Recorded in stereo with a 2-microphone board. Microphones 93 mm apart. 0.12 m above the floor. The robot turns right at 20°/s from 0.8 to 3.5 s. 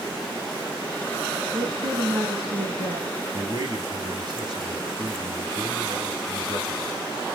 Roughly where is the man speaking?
Right.